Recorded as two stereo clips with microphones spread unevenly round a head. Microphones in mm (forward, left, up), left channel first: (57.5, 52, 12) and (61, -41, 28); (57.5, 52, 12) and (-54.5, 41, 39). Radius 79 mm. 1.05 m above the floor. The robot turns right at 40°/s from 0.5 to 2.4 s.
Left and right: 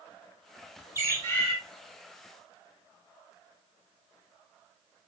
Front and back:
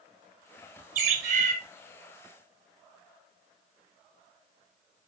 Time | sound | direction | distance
0.9 | a bird | 165° right | 2.5 m